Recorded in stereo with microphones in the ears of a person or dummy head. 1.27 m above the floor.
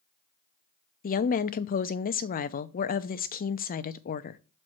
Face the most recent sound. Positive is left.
turn(degrees=45)  # may be behind; listen again after turning